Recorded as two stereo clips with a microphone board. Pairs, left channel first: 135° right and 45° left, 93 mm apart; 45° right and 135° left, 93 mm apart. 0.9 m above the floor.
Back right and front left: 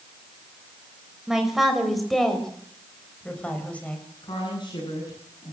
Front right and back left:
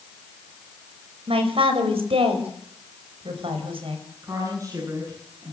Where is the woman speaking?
170° right, 9.5 m.